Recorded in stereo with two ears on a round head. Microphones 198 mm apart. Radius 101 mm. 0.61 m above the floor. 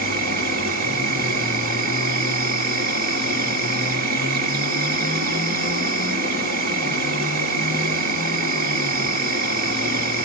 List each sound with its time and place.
0.0 s an insect: 40° right (ahead or behind), 1.3 m